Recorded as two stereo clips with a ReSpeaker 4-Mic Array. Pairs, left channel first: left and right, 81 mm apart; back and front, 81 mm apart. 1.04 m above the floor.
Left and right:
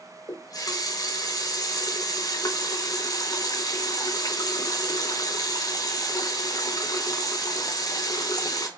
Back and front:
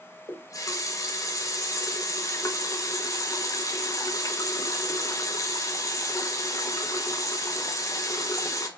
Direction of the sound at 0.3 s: 130° left.